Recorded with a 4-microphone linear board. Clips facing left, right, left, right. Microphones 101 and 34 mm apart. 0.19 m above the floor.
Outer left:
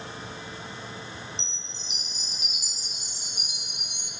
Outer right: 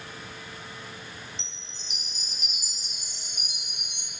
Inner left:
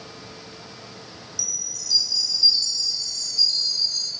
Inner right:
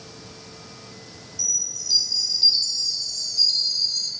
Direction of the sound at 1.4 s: 40° right (ahead or behind).